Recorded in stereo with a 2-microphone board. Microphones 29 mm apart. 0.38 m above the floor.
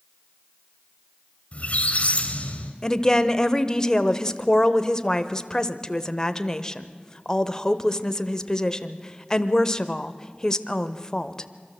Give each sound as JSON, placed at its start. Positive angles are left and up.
{"t": 1.5, "sound": "a squeak", "side_deg": 45, "distance_m": 2.0}
{"t": 2.8, "sound": "a woman speaking", "side_deg": 20, "distance_m": 1.0}